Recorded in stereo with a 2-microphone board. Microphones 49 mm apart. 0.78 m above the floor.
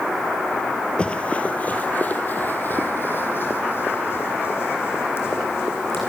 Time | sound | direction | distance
1.0 | running footsteps | 25° left (ahead or behind) | 1.1 m